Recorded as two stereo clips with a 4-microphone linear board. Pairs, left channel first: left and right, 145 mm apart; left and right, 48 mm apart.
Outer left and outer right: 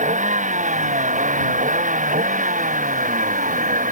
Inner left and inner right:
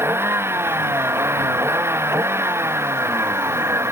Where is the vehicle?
60° right (ahead or behind); by 3.9 s 65° right (ahead or behind).